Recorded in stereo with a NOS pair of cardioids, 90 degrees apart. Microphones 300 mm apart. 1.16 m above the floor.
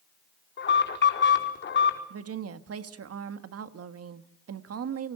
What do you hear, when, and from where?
0.6 s an alarm: 40° left, 5 m
2.1 s a woman speaking: 55° right, 1.7 m